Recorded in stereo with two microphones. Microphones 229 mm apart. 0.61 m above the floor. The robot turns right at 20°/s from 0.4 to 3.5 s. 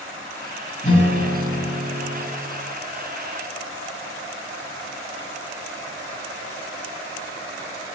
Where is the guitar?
30° left (ahead or behind), 1.7 m; by 2.2 s 60° left (ahead or behind), 1.7 m.